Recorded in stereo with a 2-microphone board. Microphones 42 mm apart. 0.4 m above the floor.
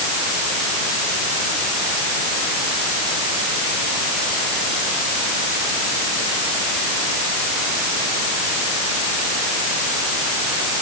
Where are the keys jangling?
I don't hear keys jangling.